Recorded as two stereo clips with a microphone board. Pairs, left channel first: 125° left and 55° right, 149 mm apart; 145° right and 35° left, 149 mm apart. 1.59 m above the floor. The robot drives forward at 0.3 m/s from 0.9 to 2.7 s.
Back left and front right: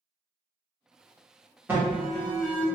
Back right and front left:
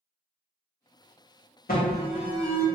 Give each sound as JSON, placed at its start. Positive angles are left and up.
{"t": 1.7, "sound": "an alarm", "azimuth_deg": -135, "distance_m": 1.5}